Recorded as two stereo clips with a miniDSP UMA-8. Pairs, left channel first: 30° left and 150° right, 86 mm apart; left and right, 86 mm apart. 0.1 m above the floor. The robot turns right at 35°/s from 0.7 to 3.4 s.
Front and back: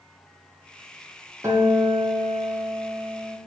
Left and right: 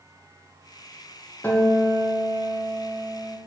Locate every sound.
1.4 s a guitar: 155° left, 1.6 m; by 3.4 s 135° right, 1.6 m